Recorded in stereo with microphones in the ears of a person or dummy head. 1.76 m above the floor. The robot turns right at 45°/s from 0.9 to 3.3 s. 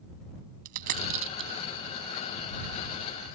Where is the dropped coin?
50° right (ahead or behind); by 1.5 s 25° right (ahead or behind).